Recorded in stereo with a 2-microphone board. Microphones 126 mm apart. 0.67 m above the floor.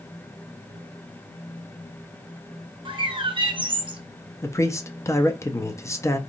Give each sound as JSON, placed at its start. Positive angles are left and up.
{"t": 2.9, "sound": "a bird", "side_deg": -40, "distance_m": 0.7}
{"t": 4.4, "sound": "a man speaking", "side_deg": 20, "distance_m": 0.5}